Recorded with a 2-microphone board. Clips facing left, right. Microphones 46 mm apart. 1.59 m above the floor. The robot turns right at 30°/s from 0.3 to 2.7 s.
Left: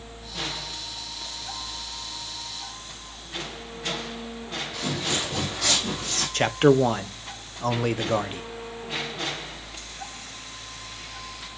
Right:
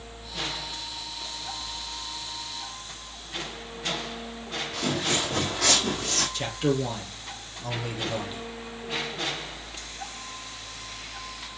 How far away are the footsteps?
About 3.5 m.